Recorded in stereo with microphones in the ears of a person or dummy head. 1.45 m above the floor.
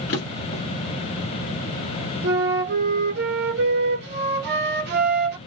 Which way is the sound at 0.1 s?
60° left (ahead or behind).